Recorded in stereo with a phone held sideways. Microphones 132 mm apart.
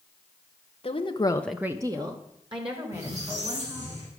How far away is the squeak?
About 5 m.